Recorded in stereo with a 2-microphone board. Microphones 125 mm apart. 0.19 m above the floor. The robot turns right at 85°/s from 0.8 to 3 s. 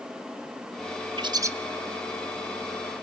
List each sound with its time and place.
1.2 s a bird: 40° right (ahead or behind), 0.7 m; by 1.5 s 20° right (ahead or behind), 0.7 m